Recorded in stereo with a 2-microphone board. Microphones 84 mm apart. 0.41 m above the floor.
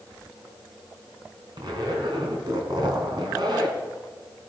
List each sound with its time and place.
1.6 s a zipper: 55° right (ahead or behind), 2.5 m